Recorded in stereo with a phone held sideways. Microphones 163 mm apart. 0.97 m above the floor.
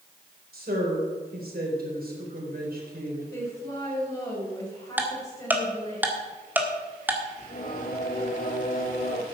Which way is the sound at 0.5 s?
70° right (ahead or behind).